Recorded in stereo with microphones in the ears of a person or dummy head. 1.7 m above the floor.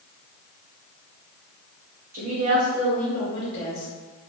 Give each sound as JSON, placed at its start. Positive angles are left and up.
{"t": 2.1, "sound": "a woman speaking", "side_deg": -45, "distance_m": 0.8}